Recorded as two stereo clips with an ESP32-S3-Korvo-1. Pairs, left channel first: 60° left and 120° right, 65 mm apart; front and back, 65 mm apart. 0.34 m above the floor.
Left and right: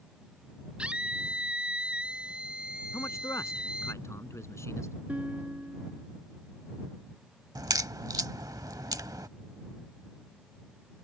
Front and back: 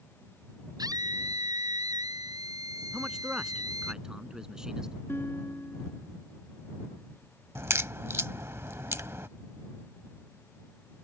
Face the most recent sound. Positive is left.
turn(degrees=-130)